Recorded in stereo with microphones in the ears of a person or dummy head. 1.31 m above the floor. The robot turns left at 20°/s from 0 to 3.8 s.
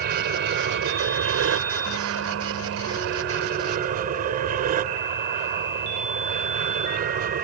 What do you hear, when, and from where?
0.0 s an aircraft: 55° right; by 7.4 s 130° right